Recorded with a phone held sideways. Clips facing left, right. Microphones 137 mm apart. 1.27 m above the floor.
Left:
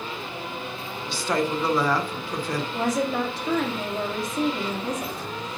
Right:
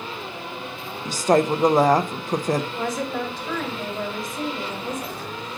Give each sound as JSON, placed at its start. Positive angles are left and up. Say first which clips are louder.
{"t": 1.1, "sound": "a woman speaking", "louder": "right 7 dB", "side_deg": -45, "distance_m": 0.6}
{"t": 2.7, "sound": "a woman speaking", "louder": "left 2 dB", "side_deg": 80, "distance_m": 2.0}